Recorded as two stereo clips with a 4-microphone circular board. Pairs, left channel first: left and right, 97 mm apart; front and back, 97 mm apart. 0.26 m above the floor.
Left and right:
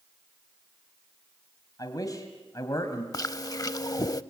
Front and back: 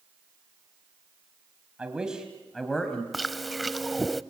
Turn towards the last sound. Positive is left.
turn(degrees=90)